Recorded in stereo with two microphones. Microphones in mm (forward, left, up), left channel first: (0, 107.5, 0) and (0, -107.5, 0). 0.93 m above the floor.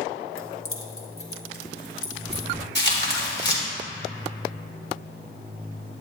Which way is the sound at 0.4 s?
80° left.